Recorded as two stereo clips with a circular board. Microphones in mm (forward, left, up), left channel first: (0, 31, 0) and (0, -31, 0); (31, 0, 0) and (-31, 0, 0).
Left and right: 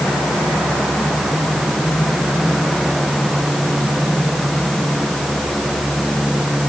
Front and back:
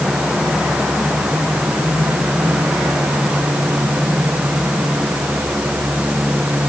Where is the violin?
I don't hear a violin.